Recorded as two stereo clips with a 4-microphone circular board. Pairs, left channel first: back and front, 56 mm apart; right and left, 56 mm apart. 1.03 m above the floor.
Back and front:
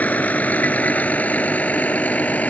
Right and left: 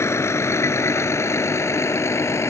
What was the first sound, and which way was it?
A vehicle, 120° right.